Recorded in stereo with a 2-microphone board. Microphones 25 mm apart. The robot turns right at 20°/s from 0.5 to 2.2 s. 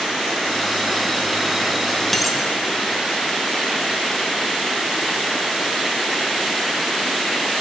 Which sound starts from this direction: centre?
A dropped coin, at 2.1 s.